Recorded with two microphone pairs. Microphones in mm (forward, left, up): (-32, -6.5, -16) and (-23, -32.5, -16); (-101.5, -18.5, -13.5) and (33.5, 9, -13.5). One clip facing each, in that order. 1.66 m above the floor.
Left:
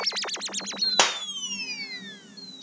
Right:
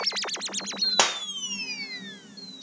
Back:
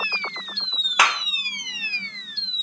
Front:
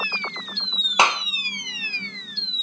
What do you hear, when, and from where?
1.0 s a clap: 40° left, 0.8 m